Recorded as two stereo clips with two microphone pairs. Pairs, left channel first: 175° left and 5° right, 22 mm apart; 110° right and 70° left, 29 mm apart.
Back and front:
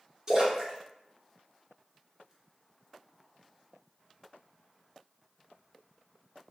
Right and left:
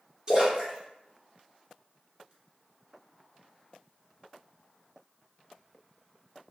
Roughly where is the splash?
Ahead left.